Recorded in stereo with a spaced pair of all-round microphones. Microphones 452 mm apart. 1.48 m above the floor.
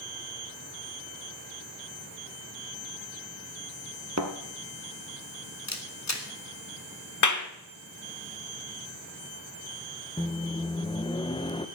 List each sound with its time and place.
4.2 s a thud: 35° right (ahead or behind), 2.5 m
5.7 s a camera shutter: 35° left (ahead or behind), 1.8 m
7.2 s a clap: 40° left (ahead or behind), 1.3 m
10.2 s a microwave: 10° left (ahead or behind), 0.9 m